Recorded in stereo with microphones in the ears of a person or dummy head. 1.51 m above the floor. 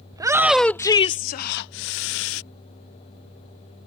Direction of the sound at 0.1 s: 20° right (ahead or behind).